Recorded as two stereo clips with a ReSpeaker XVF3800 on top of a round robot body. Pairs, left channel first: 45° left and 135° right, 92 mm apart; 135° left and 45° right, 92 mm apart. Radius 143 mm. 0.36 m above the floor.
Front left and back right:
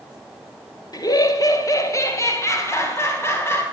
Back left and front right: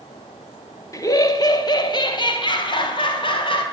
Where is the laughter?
85° left, 2.5 m; by 3.6 s 110° left, 5 m.